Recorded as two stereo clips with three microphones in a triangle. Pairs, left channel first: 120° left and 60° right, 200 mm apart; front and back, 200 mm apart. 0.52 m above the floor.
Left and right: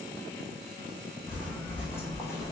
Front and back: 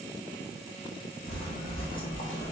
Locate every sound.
1.3 s footsteps: 40° left, 2 m; by 2.5 s 50° left, 1.0 m